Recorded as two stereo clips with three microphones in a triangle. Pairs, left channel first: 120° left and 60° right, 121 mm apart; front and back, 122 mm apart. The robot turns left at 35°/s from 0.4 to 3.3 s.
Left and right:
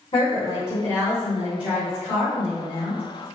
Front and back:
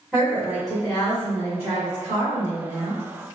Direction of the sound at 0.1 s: 105° left.